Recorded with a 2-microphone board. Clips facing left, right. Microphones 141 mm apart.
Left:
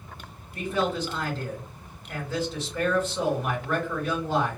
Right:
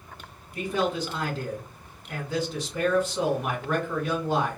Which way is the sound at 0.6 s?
15° right (ahead or behind).